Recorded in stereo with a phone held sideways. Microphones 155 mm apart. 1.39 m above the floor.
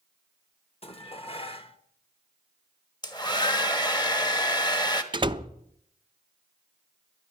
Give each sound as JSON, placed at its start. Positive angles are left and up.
{"t": 0.8, "sound": "dishes clattering", "side_deg": 40, "distance_m": 1.1}
{"t": 3.0, "sound": "a hair dryer", "side_deg": 25, "distance_m": 1.1}
{"t": 5.1, "sound": "a door slam", "side_deg": -30, "distance_m": 0.6}